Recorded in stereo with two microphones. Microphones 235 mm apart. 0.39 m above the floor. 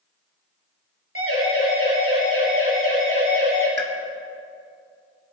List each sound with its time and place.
1.1 s a siren: 70° right (ahead or behind), 5.5 m; by 3.7 s 60° right (ahead or behind), 7 m
3.8 s a pop: 50° right (ahead or behind), 1.9 m